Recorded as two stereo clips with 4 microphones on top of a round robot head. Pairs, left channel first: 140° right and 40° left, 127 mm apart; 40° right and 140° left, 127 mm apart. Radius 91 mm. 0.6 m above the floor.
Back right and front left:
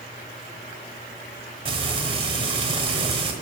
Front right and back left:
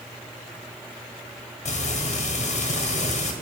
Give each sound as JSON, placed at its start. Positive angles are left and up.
{"t": 1.6, "sound": "frying", "azimuth_deg": -5, "distance_m": 1.3}